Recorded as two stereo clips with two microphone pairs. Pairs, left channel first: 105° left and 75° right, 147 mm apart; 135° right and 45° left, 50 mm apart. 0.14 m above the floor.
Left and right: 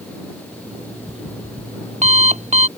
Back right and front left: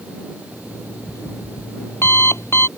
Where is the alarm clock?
110° right.